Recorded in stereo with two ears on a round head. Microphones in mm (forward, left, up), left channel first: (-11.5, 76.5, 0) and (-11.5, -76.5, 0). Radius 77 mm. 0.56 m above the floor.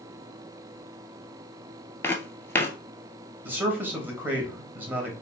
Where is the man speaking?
10° right (ahead or behind), 1.1 m.